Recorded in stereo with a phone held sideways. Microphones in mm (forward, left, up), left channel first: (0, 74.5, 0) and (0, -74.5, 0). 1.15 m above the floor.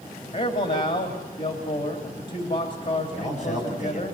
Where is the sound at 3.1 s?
50° left (ahead or behind), 8.5 m.